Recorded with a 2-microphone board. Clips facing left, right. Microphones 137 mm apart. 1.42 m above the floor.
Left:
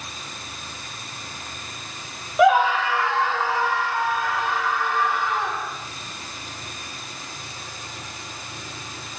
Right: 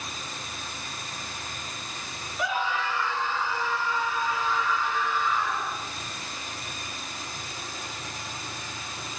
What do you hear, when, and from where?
2.4 s a scream: 75° left (ahead or behind), 1.1 m; by 5.7 s 65° left (ahead or behind), 5.5 m